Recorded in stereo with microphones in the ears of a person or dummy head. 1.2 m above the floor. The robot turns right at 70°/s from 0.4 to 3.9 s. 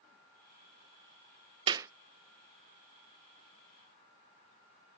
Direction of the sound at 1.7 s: 25° right (ahead or behind).